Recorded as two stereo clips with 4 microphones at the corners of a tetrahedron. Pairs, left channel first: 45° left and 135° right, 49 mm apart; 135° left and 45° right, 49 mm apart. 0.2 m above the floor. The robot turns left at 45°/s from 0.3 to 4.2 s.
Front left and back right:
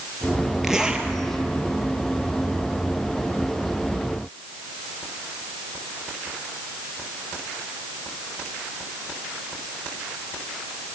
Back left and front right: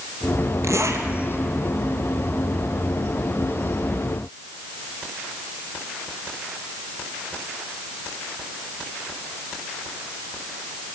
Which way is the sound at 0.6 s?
50° right.